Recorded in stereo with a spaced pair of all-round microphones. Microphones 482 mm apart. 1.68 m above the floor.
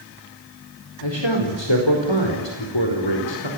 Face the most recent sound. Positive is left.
turn(degrees=65)  # may be behind; listen again after turning